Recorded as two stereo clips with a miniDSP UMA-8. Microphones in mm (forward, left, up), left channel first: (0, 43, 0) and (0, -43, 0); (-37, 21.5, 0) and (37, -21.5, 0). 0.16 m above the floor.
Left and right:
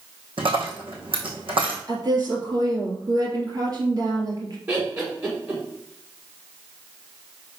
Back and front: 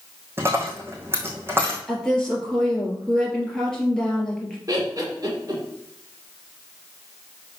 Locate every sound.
0.4 s a dropped coin: 90° right, 2 m
1.9 s a woman speaking: 130° right, 3 m
4.7 s laughter: 40° right, 1.9 m